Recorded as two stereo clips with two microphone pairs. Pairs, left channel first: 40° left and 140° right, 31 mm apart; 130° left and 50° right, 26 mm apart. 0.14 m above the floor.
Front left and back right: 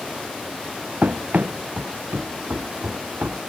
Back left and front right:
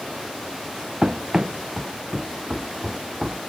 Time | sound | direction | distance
1.0 | running footsteps | 110° right | ?